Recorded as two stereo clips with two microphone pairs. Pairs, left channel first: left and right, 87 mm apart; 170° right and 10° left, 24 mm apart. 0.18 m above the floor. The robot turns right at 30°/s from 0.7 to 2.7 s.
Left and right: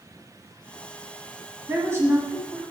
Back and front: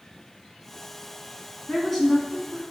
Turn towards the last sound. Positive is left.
turn(degrees=-70)